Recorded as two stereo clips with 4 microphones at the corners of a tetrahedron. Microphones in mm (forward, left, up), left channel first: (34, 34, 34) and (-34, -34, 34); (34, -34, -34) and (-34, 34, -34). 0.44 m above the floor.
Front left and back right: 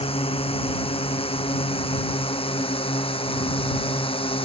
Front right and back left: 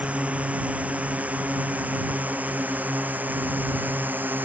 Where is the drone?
60° left; by 4.5 s 65° left.